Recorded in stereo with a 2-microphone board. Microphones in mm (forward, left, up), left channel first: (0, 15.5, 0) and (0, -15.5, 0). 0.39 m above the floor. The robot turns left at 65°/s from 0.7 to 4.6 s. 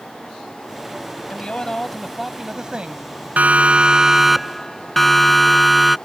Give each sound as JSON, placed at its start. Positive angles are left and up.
{"t": 1.3, "sound": "a man speaking", "azimuth_deg": 55}
{"t": 3.4, "sound": "a siren", "side_deg": -55}